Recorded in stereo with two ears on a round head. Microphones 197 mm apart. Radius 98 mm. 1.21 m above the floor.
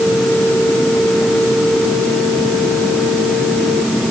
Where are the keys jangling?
I don't hear keys jangling.